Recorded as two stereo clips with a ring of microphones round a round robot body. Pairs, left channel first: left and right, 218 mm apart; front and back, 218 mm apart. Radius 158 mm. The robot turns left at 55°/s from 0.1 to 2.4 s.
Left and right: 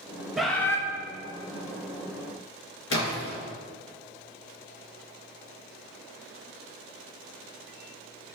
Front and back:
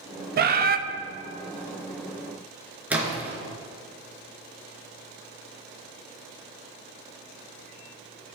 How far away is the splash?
About 3 m.